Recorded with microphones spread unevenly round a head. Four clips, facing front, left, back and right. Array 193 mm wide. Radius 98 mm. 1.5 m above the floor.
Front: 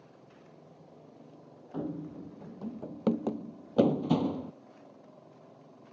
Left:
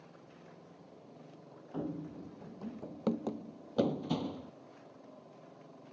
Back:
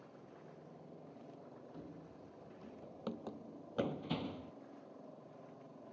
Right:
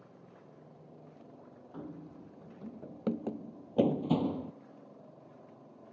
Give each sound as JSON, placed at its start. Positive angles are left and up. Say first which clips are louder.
{"t": 1.7, "sound": "running footsteps", "louder": "left 6 dB, front 20 dB", "azimuth_deg": 30}